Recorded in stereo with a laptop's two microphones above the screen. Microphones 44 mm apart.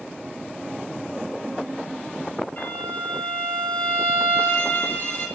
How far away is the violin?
About 3 m.